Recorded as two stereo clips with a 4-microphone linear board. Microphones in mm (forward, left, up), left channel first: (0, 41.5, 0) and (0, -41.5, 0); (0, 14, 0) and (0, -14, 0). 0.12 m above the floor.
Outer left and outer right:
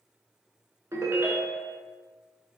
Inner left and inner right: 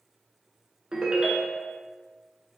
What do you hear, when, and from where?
0.9 s a ringtone: 35° right (ahead or behind), 0.5 m